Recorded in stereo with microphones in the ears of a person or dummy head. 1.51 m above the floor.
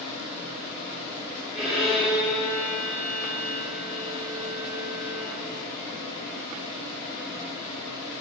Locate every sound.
1.5 s a violin: centre (ahead or behind), 1.1 m